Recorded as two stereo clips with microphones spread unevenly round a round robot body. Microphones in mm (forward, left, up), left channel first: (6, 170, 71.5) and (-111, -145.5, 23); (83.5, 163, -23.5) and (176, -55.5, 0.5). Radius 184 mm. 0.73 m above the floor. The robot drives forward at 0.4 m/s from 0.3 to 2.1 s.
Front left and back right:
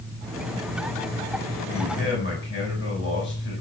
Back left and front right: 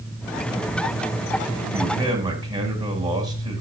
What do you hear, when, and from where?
1.7 s a man speaking: 5° left, 6.5 m